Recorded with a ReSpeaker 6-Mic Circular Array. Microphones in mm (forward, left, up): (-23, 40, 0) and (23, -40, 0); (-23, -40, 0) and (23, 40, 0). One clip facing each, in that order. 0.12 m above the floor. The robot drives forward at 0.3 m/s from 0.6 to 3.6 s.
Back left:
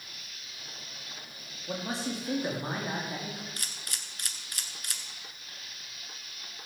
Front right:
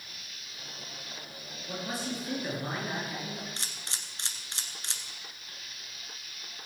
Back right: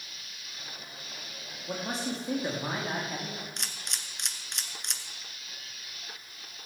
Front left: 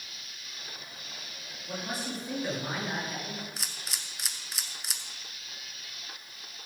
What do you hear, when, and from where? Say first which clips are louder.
1.7 s a man speaking: back left 2 dB, back right 3 dB; straight behind, 5 m
3.6 s a camera shutter: front right 1 dB, even; 25° right, 1.3 m